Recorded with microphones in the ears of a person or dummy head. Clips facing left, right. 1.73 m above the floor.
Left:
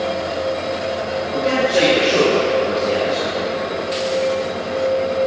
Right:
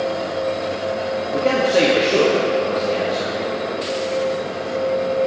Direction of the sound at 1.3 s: 60° right (ahead or behind).